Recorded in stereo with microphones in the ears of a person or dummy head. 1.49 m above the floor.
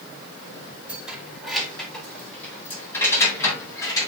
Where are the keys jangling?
5° right (ahead or behind), 3.5 m; by 4.1 s 25° left (ahead or behind), 6 m.